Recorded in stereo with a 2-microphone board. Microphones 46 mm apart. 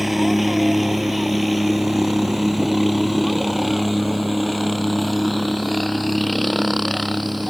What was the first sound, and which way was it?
A helicopter, centre (ahead or behind).